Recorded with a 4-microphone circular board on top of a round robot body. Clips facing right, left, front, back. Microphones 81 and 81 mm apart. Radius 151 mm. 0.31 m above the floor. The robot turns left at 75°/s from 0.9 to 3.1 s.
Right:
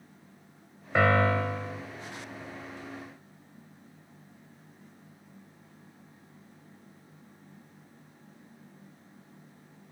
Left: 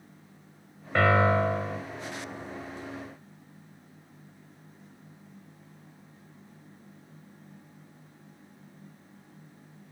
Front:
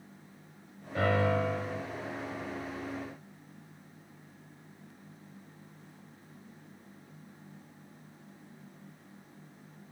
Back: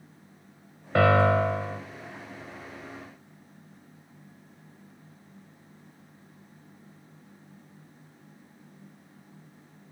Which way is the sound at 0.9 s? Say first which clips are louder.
Left 2 dB, back 8 dB; 170° right.